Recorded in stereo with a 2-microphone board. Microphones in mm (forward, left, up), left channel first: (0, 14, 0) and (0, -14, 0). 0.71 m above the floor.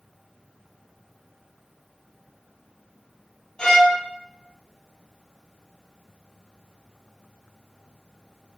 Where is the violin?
35° left (ahead or behind), 1.1 m.